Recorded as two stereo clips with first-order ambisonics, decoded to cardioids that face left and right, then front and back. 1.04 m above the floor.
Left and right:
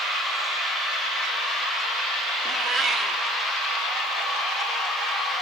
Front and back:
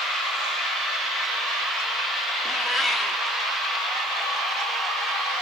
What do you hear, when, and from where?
2.5 s a cat meowing: 60° right, 0.7 m